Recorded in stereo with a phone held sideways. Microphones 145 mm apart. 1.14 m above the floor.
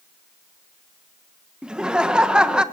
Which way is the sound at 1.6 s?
5° right (ahead or behind).